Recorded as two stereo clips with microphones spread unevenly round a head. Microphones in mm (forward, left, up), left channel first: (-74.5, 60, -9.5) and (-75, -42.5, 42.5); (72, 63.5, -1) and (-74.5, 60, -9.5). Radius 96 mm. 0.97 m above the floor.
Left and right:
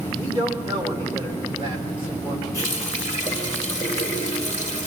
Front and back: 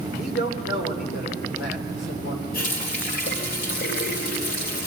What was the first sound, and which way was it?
A man speaking, 15° right.